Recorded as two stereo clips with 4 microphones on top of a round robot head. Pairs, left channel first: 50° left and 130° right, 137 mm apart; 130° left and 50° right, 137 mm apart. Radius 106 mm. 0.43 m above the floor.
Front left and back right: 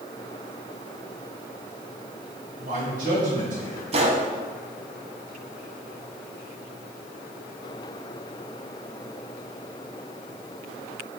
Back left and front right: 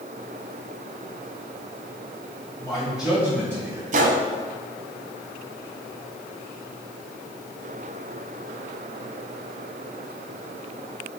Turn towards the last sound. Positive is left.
turn(degrees=-85)